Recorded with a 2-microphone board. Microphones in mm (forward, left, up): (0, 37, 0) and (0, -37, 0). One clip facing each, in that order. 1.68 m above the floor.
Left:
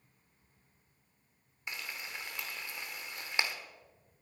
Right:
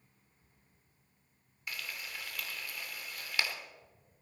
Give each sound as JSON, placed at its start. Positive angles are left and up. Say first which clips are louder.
{"t": 1.7, "sound": "frying", "louder": "left 1 dB", "side_deg": 25, "distance_m": 1.4}